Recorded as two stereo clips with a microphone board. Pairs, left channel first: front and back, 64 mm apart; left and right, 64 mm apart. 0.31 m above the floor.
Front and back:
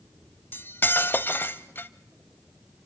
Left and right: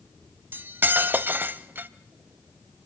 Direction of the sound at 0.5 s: 45° right.